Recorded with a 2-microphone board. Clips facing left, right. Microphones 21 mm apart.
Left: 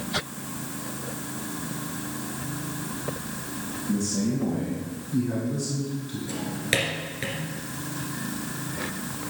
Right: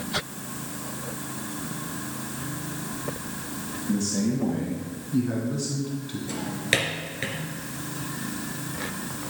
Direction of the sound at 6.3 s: 10° right (ahead or behind).